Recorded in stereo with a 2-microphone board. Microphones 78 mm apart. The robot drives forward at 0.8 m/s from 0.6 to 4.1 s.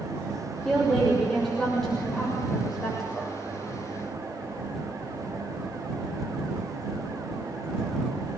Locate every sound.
0.7 s a woman speaking: 5° left (ahead or behind), 5.5 m